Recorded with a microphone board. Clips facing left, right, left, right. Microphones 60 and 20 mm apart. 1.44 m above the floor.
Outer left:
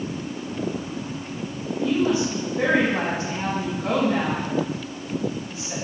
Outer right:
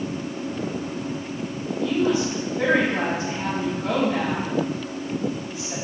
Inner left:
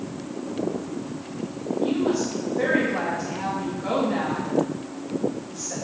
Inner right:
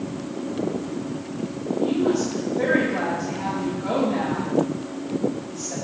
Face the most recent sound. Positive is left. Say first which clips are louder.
# even, inner right 2 dB
turn(degrees=65)  # may be behind; listen again after turning